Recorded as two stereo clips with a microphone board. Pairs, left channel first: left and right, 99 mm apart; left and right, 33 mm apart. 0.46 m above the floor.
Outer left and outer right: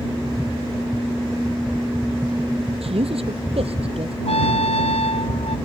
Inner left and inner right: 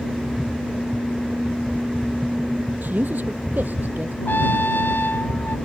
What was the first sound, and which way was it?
A man speaking, 70° right (ahead or behind).